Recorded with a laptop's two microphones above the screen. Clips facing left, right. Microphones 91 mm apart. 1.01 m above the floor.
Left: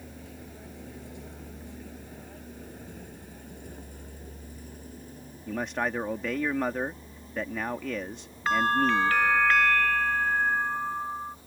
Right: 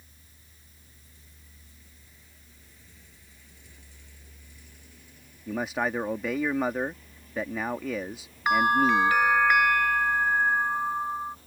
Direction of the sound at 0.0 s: 80° left.